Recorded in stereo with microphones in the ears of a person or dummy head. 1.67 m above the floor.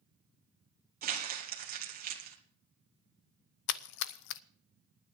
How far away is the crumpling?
About 1.9 m.